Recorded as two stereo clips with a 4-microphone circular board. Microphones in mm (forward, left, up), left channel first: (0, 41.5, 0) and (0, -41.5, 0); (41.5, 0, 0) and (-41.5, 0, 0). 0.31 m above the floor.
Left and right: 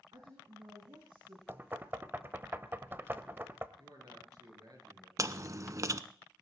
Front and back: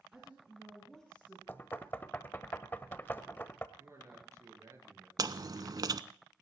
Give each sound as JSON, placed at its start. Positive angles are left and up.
{"t": 0.1, "sound": "a woman speaking", "azimuth_deg": -100, "distance_m": 3.5}
{"t": 1.5, "sound": "knocking", "azimuth_deg": -50, "distance_m": 0.8}
{"t": 3.8, "sound": "a man speaking", "azimuth_deg": -125, "distance_m": 6.0}
{"t": 5.2, "sound": "chewing", "azimuth_deg": -140, "distance_m": 0.6}